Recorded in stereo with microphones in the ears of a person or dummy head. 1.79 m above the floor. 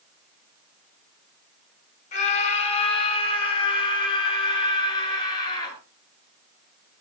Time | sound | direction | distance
2.1 | a scream | 40° left (ahead or behind) | 6.5 m